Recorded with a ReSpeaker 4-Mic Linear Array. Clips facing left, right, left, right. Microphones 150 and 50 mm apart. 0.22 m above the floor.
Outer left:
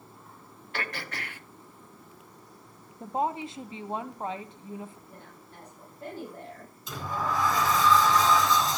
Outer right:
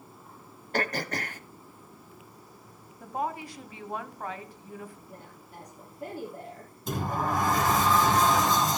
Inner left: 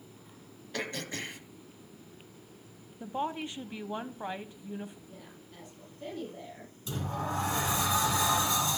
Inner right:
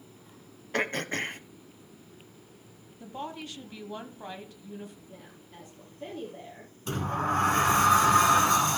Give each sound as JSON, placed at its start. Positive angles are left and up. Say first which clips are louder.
{"t": 0.7, "sound": "throat clearing", "louder": "outer right 7 dB, inner right 7 dB", "side_deg": -45, "distance_m": 0.9}
{"t": 3.0, "sound": "a woman speaking", "louder": "outer left 3 dB, inner left 4 dB", "side_deg": 25, "distance_m": 1.1}
{"t": 5.1, "sound": "a woman speaking", "louder": "outer right 2 dB, inner right 1 dB", "side_deg": -10, "distance_m": 6.5}
{"t": 6.9, "sound": "a sliding door", "louder": "outer right 2 dB, inner right 6 dB", "side_deg": -50, "distance_m": 2.5}